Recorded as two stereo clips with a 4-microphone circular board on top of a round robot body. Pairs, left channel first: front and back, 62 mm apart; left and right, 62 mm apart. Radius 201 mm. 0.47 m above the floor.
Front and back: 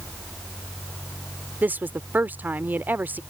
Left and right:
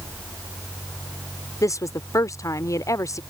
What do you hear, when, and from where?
1.6 s a woman speaking: 120° left